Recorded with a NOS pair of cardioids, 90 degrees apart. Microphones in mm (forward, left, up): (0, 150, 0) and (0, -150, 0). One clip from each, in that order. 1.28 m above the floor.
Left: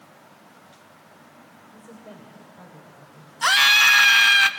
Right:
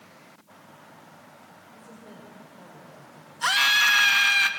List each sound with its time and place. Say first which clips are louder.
1.7 s a woman speaking: left 4 dB; 20° left, 6.5 m
3.4 s a scream: left 5 dB; 30° left, 1.7 m